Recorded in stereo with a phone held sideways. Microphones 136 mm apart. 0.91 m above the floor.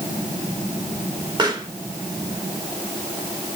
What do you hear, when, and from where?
1.4 s a pop: 30° right (ahead or behind), 2.5 m